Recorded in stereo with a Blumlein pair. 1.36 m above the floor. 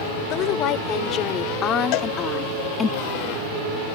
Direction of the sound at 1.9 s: 40° left.